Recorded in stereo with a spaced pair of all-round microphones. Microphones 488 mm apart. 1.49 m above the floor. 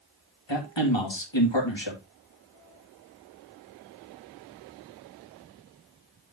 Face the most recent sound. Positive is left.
turn(degrees=60)  # may be behind; listen again after turning